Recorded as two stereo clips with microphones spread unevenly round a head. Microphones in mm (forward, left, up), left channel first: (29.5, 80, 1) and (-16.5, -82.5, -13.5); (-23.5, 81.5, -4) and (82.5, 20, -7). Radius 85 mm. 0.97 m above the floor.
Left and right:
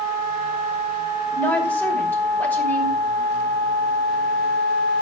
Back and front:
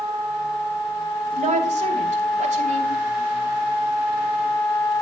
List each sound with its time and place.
1.3 s a woman speaking: 5° right, 3.5 m